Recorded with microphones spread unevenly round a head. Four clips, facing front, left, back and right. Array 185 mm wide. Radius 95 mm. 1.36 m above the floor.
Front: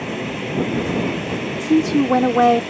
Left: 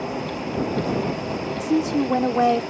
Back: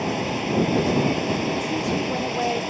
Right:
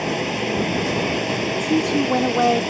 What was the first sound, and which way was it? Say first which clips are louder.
Running water: right 4 dB, back 1 dB; 90° right.